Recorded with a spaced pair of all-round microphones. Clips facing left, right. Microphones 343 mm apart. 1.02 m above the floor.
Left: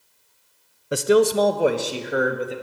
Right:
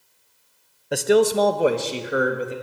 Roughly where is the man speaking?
Centre.